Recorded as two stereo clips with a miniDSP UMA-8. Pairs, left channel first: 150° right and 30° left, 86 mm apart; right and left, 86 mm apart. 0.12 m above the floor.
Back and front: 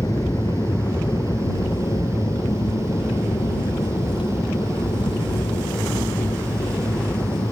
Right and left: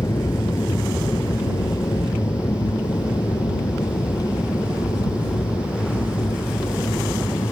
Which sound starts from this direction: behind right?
An aircraft, at 0.0 s.